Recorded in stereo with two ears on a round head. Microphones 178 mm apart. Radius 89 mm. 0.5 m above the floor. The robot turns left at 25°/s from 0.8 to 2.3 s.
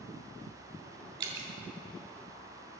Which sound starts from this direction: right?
Dripping, at 1.2 s.